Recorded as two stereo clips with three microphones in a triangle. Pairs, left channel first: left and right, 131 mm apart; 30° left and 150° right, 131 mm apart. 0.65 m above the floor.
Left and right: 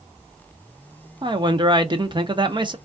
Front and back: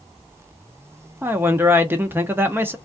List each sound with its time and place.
1.2 s a man speaking: 85° right, 0.6 m